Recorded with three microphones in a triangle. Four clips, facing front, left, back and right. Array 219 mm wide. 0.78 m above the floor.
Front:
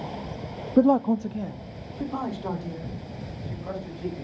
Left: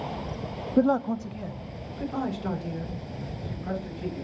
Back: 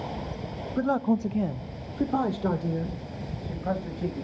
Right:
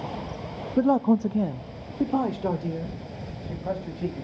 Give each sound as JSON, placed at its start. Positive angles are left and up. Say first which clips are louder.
{"t": 0.8, "sound": "a man speaking", "louder": "right 2 dB, front 6 dB", "azimuth_deg": 10, "distance_m": 0.5}